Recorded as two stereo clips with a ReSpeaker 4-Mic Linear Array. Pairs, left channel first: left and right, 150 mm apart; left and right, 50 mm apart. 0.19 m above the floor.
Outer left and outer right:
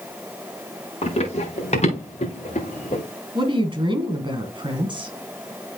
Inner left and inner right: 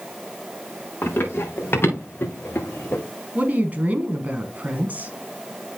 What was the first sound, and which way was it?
Running footsteps, 45° left (ahead or behind).